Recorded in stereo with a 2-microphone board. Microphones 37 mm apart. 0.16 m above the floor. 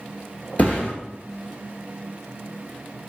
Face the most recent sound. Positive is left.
turn(degrees=50)  # may be behind; listen again after turning